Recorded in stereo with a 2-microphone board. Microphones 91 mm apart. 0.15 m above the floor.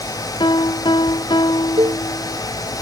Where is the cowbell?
55° right (ahead or behind).